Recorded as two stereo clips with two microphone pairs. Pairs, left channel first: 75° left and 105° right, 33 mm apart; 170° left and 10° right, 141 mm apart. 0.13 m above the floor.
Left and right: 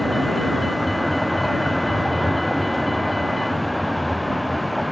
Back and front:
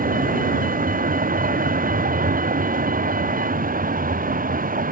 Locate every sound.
0.0 s a vehicle: 10° right